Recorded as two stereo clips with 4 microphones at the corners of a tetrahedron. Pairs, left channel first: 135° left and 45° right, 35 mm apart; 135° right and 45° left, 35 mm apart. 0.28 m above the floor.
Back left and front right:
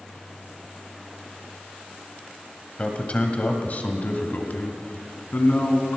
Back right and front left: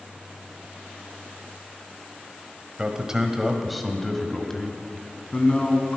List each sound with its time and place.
2.8 s a man speaking: 95° left, 1.6 m; by 6.0 s 165° left, 3 m